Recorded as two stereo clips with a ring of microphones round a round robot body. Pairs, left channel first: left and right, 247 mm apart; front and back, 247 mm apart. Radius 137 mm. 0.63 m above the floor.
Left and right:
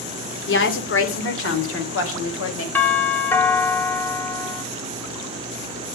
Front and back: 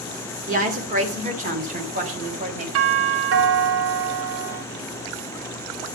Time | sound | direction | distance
0.5 | a woman speaking | 125° left | 2.5 m
2.8 | a doorbell | 170° left | 2 m